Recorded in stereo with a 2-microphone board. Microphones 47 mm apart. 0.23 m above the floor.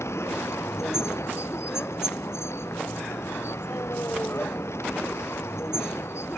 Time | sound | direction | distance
0.0 | a vehicle | 75° left (ahead or behind) | ?